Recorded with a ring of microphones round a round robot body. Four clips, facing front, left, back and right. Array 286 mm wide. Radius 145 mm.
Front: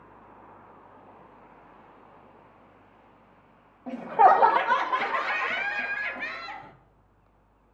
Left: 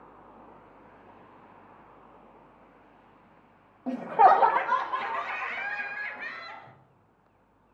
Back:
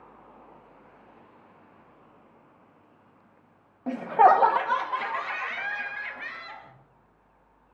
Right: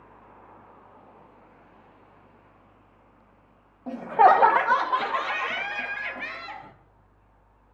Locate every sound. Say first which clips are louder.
3.9 s laughter: right 2 dB, even; 165° left, 0.7 m; by 6.7 s 50° right, 2.0 m